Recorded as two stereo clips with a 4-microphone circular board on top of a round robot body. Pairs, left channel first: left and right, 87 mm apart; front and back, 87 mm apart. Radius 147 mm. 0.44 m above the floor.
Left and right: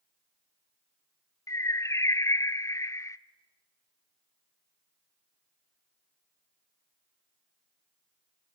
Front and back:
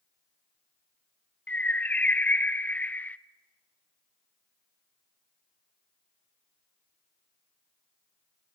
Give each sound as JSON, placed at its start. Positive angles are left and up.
{"t": 1.5, "sound": "a bird", "azimuth_deg": 65, "distance_m": 0.9}